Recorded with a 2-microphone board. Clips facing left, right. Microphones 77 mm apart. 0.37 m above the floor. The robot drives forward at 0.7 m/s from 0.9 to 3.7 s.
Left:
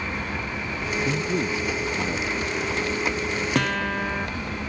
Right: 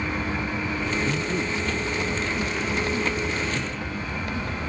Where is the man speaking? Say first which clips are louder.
Left 1 dB; 15° left (ahead or behind).